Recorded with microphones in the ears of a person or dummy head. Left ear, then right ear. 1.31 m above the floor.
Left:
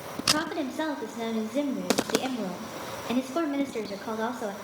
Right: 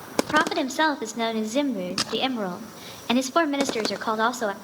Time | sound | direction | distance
0.2 | a woman speaking | 50° right (ahead or behind) | 0.6 m